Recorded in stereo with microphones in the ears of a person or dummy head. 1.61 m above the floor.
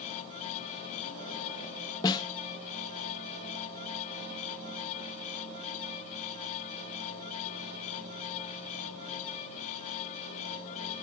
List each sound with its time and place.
2.0 s a snare drum: 30° left (ahead or behind), 1.2 m